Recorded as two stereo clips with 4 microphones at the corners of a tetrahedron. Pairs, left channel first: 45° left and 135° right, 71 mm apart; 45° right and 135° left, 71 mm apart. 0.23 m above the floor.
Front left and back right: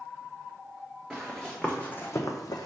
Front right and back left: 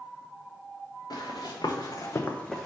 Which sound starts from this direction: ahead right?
Running footsteps, at 1.1 s.